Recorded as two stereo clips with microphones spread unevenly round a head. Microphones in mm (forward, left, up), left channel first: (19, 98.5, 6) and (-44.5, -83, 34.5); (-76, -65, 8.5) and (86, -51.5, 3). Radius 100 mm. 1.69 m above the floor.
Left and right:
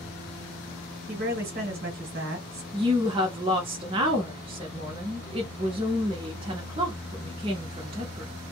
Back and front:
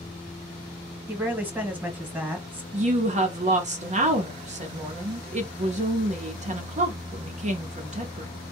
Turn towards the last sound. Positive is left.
turn(degrees=-45)